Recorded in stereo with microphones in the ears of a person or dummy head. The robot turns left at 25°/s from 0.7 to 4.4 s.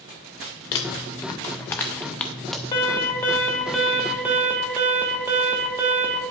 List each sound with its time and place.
0.7 s crumpling: 25° left (ahead or behind), 0.5 m; by 2.6 s centre (ahead or behind), 0.5 m
2.7 s an alarm: 25° left, 1.2 m; by 6.2 s 15° right, 1.2 m